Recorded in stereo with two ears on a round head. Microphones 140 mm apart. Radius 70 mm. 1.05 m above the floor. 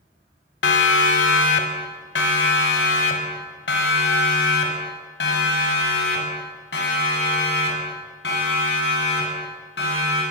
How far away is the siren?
About 3 m.